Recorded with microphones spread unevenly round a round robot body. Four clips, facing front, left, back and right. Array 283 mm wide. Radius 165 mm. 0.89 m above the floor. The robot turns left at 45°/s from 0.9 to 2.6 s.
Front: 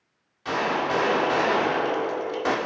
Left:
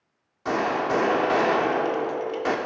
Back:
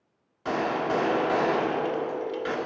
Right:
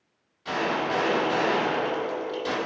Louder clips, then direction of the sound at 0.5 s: Left 3 dB, front 1 dB; 115° left.